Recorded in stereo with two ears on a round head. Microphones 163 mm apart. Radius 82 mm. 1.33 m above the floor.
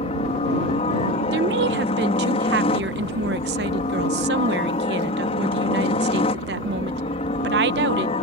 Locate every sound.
0.0 s a helicopter: 35° left (ahead or behind)
1.3 s a woman speaking: 65° right (ahead or behind)